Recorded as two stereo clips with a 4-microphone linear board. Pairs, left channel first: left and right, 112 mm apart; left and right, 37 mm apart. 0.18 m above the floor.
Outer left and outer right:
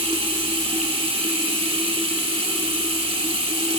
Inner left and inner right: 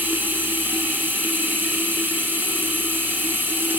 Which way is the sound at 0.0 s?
65° right (ahead or behind).